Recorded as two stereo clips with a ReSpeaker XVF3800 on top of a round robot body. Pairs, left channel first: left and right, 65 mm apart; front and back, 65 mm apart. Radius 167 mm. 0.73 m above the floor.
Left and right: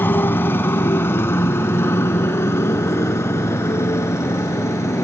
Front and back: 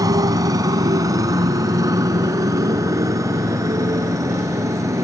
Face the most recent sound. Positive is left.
turn(degrees=140)